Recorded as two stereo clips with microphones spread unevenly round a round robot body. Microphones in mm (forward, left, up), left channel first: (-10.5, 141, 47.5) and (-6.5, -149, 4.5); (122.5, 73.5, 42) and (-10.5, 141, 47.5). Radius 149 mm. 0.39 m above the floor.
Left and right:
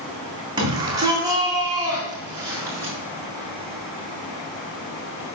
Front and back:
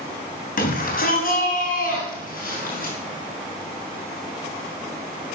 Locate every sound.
0.6 s a shout: 15° right, 3 m; by 2.9 s 10° right, 4.5 m